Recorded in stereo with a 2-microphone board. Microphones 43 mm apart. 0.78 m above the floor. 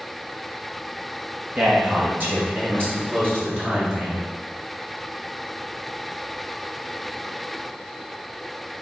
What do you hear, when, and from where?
1.6 s a man speaking: 35° right (ahead or behind), 1.2 m; by 4.3 s 45° right (ahead or behind), 3 m